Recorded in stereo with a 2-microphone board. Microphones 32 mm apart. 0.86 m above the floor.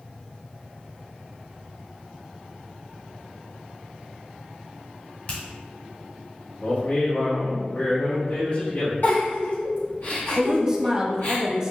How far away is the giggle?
About 1.8 m.